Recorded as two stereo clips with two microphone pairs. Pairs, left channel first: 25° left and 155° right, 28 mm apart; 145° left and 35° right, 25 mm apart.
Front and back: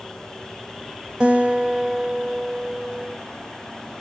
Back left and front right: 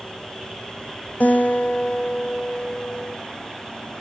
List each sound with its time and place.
1.2 s a guitar: 150° left, 1.8 m